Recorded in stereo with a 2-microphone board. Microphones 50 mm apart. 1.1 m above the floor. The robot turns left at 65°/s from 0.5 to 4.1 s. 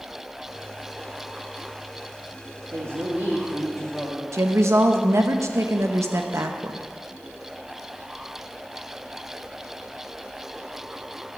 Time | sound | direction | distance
2.7 | a woman speaking | 110° right | 1.8 m
4.3 | a woman speaking | 75° right (ahead or behind) | 0.8 m